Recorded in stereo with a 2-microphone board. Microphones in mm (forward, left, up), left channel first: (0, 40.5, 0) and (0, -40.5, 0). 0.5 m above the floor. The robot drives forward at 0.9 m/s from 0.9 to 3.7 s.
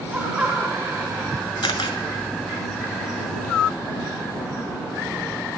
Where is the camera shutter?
80° left, 1.6 m; by 2.0 s 85° left, 1.6 m.